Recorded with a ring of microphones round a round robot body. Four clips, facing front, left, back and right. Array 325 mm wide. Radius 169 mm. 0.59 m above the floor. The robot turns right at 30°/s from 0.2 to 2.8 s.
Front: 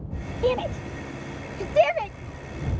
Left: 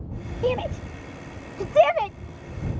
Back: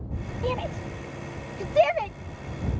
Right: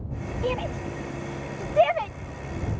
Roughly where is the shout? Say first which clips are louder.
Left 4 dB, front 6 dB; ahead left.